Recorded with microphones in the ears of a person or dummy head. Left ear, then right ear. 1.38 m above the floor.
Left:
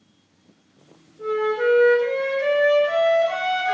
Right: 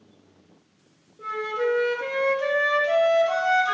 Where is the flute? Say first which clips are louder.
Left 5 dB; 25° right (ahead or behind), 0.6 m.